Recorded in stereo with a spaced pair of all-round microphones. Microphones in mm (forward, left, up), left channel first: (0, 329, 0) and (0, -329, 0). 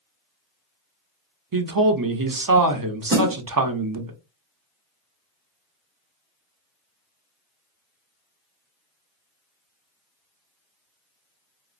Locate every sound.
1.5 s a man speaking: 35° right (ahead or behind), 0.5 m
3.1 s a snare drum: 20° right (ahead or behind), 2 m